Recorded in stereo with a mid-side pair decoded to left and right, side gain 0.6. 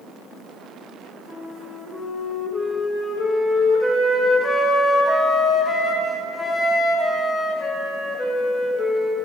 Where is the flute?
Straight ahead, 0.8 m.